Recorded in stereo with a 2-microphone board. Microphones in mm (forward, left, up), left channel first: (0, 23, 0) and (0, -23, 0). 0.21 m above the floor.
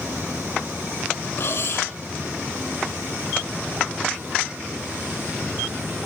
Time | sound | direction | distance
1.4 | cutlery clinking | 55° left (ahead or behind) | 4 m